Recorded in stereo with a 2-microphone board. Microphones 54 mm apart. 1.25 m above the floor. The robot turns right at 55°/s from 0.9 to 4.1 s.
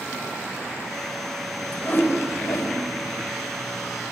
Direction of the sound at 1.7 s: 30° left.